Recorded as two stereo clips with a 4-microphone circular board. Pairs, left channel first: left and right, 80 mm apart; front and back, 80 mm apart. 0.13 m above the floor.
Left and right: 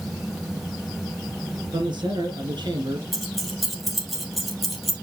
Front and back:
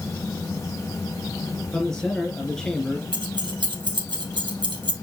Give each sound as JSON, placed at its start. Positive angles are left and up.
{"t": 1.7, "sound": "a man speaking", "azimuth_deg": -85, "distance_m": 3.5}
{"t": 3.1, "sound": "keys jangling", "azimuth_deg": 180, "distance_m": 3.0}